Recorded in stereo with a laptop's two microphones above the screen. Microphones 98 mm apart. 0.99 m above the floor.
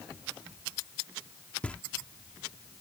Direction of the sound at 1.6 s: 15° left (ahead or behind).